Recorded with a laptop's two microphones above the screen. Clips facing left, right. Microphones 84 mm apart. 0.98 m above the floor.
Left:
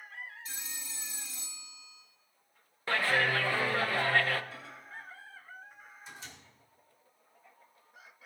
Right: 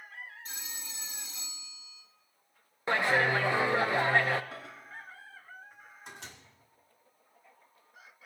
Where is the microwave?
60° right (ahead or behind), 1.8 m.